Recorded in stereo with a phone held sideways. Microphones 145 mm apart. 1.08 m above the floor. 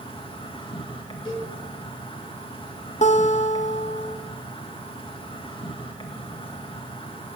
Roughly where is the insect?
Left.